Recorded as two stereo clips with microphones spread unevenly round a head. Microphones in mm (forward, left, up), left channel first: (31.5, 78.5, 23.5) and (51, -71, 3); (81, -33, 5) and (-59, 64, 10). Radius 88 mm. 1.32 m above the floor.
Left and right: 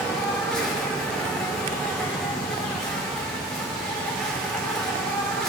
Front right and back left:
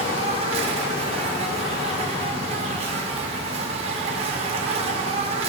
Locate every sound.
0.0 s an insect: 170° right, 1.1 m